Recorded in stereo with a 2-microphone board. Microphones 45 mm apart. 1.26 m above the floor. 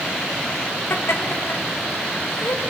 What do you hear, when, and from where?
0.9 s laughter: 70° left (ahead or behind), 2 m